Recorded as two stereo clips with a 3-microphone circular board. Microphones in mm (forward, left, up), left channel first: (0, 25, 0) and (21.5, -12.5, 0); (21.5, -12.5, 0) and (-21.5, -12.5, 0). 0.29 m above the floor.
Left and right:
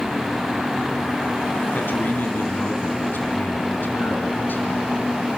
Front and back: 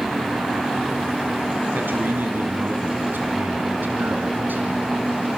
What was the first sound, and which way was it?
A man speaking, 150° left.